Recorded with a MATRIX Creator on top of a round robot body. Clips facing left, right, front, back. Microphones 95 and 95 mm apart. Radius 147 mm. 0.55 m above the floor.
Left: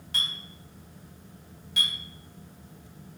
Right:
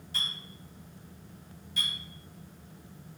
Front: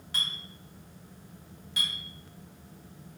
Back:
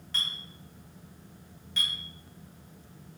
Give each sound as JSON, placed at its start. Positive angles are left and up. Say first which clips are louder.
{"t": 0.1, "sound": "a clink", "louder": "left 3 dB, front 1 dB", "azimuth_deg": 75, "distance_m": 1.6}